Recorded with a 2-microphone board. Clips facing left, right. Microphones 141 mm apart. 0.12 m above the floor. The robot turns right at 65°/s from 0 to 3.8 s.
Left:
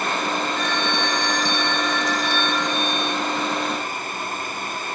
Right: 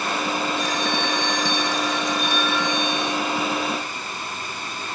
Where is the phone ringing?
135° right, 1.3 m; by 3.2 s 35° left, 1.3 m.